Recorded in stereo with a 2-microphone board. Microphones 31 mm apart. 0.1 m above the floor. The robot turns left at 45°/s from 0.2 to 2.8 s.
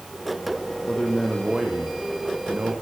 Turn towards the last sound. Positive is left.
turn(degrees=-60)